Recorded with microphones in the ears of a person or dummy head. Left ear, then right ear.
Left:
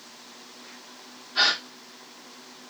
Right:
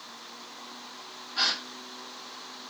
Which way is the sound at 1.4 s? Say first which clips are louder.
Left 5 dB; 35° left (ahead or behind).